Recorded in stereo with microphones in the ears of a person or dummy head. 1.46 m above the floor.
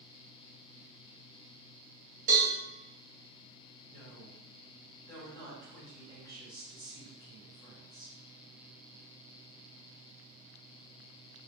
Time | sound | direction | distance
2.3 | a cowbell | 40° right (ahead or behind) | 1.2 m
3.9 | a woman speaking | 15° left (ahead or behind) | 1.3 m